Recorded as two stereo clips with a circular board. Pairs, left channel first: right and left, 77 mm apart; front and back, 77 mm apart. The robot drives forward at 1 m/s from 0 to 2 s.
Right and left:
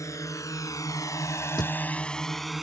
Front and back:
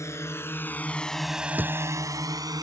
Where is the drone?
50° right; by 2.6 s 175° left.